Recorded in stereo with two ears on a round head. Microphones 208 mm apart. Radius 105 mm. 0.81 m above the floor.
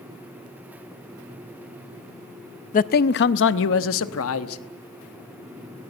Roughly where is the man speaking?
Left.